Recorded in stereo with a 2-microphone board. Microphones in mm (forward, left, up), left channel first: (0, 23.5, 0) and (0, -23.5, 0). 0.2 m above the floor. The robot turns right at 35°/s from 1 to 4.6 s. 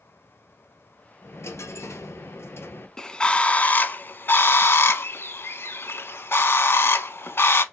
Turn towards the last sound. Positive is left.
turn(degrees=70)